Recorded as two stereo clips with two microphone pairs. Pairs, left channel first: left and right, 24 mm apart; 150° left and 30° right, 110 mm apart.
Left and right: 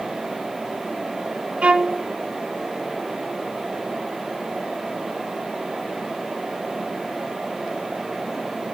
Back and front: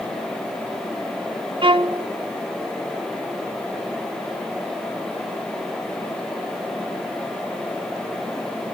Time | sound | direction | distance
1.6 | a violin | 60° right | 0.8 m